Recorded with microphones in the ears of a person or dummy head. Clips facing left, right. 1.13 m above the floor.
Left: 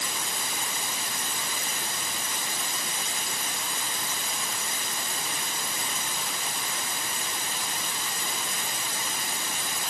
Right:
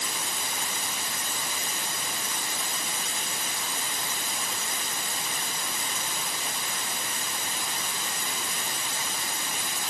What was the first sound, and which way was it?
Only background noise.